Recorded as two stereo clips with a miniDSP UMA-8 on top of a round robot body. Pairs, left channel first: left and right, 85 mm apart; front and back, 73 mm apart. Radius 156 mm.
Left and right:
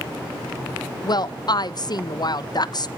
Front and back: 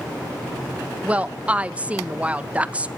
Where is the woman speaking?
110° left, 1.3 m.